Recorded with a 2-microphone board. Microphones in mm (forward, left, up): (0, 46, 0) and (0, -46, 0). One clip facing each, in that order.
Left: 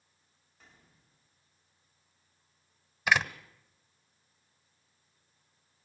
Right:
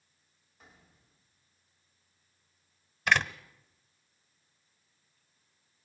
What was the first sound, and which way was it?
A gunshot, 5° right (ahead or behind).